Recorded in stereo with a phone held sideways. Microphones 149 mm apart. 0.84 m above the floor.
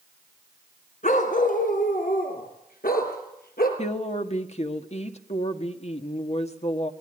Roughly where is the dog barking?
Left.